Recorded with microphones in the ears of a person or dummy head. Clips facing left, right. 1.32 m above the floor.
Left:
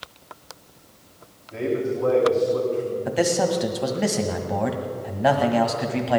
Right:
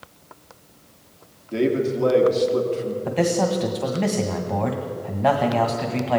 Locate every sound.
1.5 s a man speaking: 50° right (ahead or behind), 3 m
3.0 s a man speaking: 5° left (ahead or behind), 1.6 m